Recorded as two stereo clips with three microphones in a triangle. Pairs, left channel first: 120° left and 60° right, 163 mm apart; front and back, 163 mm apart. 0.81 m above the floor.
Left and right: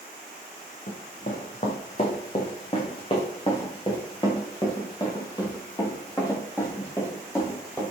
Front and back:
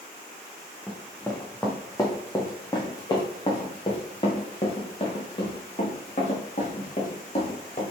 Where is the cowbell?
No cowbell in this recording.